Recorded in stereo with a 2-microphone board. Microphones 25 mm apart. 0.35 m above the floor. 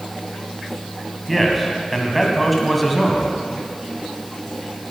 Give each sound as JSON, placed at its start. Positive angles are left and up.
{"t": 1.3, "sound": "a man speaking", "side_deg": 5, "distance_m": 2.5}